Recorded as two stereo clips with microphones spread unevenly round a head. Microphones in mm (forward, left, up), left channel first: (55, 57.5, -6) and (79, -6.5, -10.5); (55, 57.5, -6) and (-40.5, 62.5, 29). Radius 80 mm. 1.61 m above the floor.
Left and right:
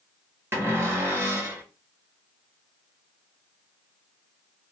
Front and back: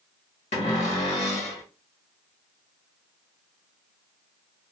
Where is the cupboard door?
30° right, 1.7 m.